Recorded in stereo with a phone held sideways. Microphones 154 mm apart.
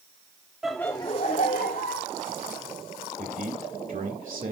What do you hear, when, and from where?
0.6 s laughter: 5° right (ahead or behind), 0.7 m; by 2.1 s 80° left, 1.4 m
3.2 s a man speaking: 65° right (ahead or behind), 1.8 m